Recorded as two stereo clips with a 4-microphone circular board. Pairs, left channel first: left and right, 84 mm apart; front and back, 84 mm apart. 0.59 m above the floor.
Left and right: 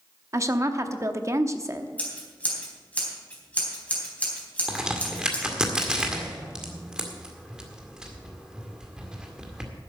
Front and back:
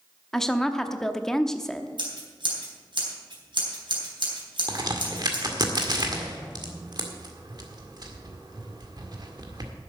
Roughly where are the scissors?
Behind.